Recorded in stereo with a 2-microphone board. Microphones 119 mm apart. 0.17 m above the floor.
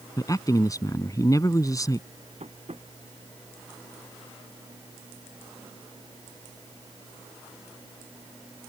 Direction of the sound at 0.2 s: 30° left (ahead or behind).